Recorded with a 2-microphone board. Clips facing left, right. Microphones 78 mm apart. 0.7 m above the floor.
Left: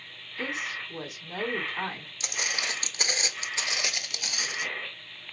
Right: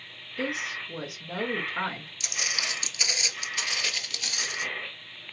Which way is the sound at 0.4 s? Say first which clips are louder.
Right 2 dB; 65° right (ahead or behind).